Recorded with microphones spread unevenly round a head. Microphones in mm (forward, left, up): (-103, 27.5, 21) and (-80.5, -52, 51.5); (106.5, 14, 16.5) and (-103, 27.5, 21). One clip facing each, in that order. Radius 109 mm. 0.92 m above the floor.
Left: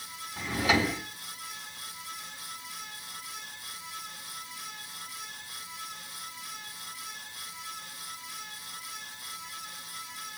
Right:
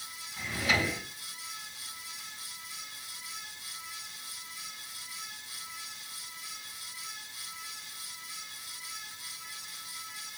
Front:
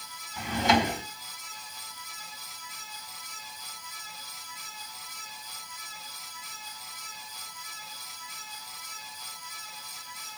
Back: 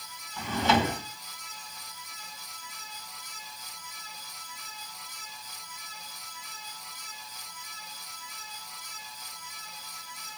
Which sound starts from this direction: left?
A drawer, at 0.4 s.